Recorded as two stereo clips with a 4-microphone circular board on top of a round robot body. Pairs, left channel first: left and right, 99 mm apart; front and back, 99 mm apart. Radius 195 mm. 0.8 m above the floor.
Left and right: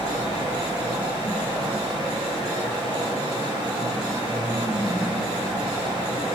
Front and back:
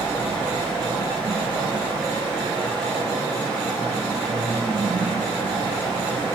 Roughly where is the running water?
Left.